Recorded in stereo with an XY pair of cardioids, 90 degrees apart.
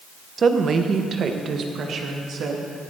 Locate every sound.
0.4 s a woman speaking: 45° right, 1.1 m; by 2.6 s 75° right, 2.5 m